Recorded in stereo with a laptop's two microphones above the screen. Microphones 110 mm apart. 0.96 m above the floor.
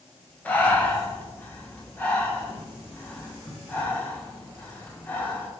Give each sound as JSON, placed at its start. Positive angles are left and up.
{"t": 0.5, "sound": "breathing", "side_deg": 15, "distance_m": 1.6}